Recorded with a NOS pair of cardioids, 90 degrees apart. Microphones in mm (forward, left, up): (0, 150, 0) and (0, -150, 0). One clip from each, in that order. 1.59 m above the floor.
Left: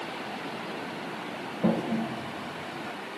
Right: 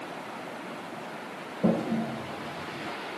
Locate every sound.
1.6 s a toilet flushing: 10° right, 1.4 m